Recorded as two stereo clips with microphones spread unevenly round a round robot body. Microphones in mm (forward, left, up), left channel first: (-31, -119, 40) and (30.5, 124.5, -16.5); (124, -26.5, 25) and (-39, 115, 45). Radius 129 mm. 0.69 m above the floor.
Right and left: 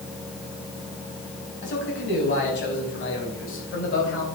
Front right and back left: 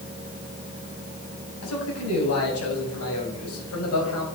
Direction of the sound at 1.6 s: 50° right.